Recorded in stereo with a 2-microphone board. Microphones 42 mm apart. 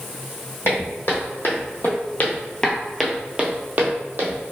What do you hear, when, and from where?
0.7 s footsteps: 70° left (ahead or behind), 1.4 m; by 4.4 s 50° right (ahead or behind), 1.0 m